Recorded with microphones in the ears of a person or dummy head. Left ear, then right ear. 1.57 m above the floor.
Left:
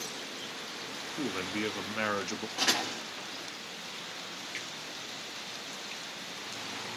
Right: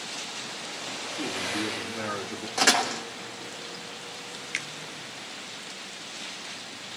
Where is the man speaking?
80° left, 0.6 m.